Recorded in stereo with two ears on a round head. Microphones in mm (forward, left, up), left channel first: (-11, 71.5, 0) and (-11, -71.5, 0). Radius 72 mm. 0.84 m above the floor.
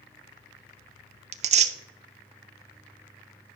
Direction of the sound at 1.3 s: 45° right (ahead or behind).